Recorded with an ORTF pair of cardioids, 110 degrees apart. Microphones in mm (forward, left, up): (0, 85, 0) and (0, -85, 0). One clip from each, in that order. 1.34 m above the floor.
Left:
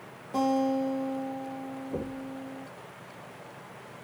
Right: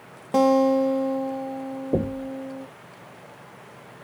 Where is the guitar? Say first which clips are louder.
Right 9 dB; 60° right, 1.9 m.